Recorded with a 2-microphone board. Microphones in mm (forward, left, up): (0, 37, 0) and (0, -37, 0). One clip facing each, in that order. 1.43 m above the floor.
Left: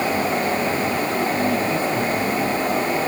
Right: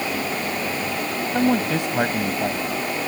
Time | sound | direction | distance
1.3 | a man speaking | 80° right | ?